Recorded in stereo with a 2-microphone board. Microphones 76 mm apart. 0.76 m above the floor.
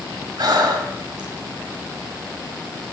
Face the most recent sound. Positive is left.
turn(degrees=-65)  # may be behind; listen again after turning